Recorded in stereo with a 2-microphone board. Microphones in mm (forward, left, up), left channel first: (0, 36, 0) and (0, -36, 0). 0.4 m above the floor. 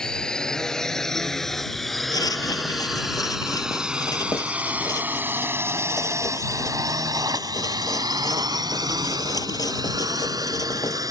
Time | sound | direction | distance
0.0 | a drone | 10° left (ahead or behind) | ?
2.1 | writing | 60° left (ahead or behind) | ?